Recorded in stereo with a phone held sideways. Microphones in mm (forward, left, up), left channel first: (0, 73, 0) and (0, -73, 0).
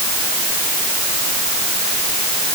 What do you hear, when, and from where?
Only background noise.